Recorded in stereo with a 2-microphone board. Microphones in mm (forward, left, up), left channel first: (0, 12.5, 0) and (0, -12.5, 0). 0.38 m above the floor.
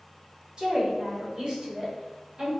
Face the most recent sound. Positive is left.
turn(degrees=-35)  # may be behind; listen again after turning